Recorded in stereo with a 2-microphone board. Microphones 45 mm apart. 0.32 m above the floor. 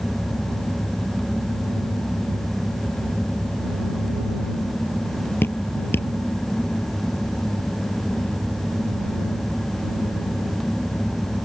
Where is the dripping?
55° left (ahead or behind).